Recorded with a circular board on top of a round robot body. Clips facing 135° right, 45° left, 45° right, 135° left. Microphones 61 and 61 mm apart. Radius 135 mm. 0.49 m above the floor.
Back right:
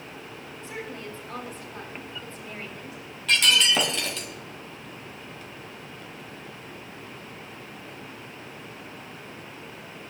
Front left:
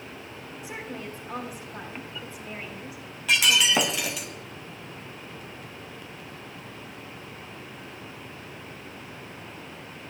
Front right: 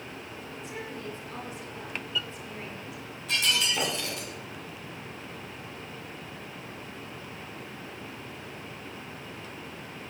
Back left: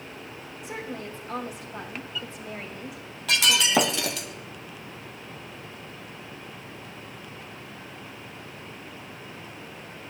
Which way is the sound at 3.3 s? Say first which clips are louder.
Even, back left 6 dB; 125° left.